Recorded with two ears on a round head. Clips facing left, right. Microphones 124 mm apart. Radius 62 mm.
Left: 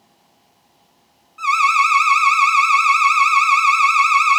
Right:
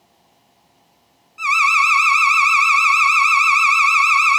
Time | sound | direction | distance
1.4 | an alarm | 15° right (ahead or behind) | 0.8 m